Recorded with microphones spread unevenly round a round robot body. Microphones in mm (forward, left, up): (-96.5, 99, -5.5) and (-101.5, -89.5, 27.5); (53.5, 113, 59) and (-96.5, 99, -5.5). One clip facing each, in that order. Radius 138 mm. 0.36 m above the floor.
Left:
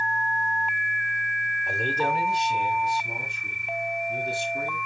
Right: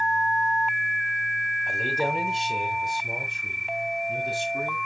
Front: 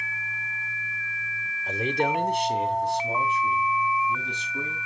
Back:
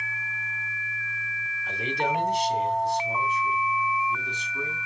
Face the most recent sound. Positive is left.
turn(degrees=-55)